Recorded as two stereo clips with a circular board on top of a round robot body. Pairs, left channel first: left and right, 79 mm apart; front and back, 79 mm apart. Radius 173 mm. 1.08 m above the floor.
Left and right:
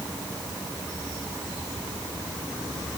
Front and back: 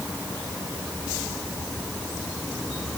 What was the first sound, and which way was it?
Only background noise.